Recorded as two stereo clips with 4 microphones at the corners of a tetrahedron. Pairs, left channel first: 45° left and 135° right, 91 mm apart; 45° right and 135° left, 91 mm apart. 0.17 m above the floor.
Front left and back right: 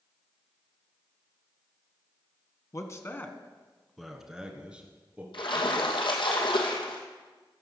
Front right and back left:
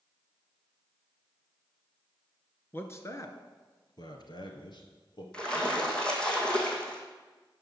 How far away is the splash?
About 2.5 m.